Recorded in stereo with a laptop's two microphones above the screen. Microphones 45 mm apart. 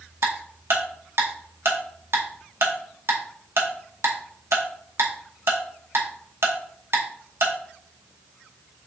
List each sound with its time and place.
0.2 s ticking: 65° right (ahead or behind), 0.8 m